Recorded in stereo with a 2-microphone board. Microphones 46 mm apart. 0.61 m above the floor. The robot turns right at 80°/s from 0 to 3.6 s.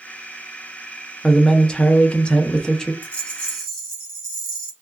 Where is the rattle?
120° left, 1.7 m; by 4.7 s 170° left, 1.7 m.